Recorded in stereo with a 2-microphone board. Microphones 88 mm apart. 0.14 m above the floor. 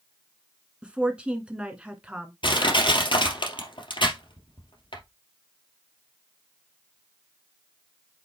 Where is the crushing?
65° left (ahead or behind), 2.5 m.